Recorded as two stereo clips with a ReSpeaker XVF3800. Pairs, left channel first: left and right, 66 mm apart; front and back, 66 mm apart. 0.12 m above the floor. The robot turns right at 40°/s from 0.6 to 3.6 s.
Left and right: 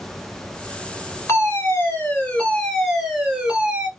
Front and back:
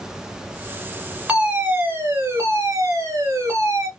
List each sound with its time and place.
1.3 s a fire alarm: 110° left, 3 m; by 3.9 s 155° right, 3 m